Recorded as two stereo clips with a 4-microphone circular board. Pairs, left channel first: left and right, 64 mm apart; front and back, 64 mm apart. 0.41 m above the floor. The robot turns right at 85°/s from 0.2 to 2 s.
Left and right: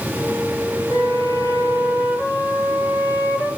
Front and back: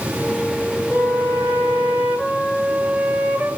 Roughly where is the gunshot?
No gunshot in this recording.